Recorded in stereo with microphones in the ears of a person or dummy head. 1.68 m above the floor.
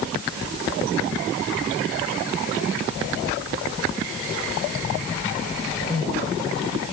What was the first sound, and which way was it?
Only background noise.